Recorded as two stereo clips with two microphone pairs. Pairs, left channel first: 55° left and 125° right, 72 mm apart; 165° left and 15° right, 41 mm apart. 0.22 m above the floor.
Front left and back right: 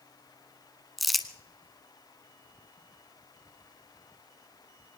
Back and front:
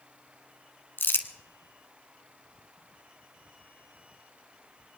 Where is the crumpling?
145° left, 1.0 m.